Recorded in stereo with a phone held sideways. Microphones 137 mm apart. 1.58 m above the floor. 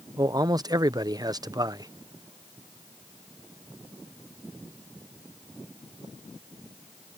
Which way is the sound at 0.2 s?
30° right (ahead or behind).